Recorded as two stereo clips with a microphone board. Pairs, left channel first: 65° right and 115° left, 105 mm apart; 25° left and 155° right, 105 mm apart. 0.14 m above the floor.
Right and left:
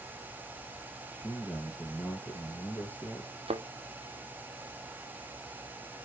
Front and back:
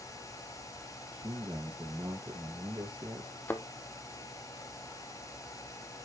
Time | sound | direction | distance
1.1 | a man speaking | 135° right | 2.5 m
3.5 | a thud | 95° left | 0.9 m